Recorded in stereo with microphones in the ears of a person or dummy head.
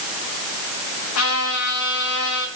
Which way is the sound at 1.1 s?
80° left.